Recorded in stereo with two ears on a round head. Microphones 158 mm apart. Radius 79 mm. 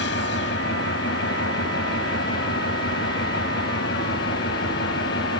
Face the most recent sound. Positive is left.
turn(degrees=75)  # may be behind; listen again after turning